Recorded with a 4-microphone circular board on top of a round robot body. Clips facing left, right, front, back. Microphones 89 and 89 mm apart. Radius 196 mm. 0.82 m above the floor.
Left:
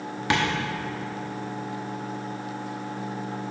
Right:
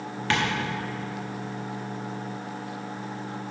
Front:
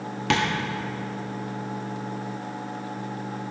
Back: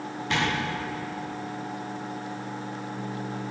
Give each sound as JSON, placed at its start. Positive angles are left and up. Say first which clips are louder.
{"t": 0.3, "sound": "tapping", "louder": "left 2 dB, front 3 dB", "azimuth_deg": 15, "distance_m": 0.5}